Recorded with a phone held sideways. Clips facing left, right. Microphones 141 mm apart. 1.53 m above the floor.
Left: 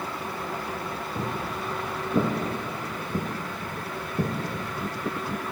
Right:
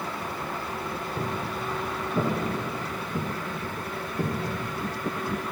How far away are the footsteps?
About 3 m.